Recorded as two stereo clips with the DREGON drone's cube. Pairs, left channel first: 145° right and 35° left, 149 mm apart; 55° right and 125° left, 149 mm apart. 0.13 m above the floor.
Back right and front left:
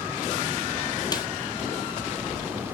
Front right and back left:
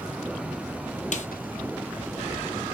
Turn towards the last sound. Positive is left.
turn(degrees=-85)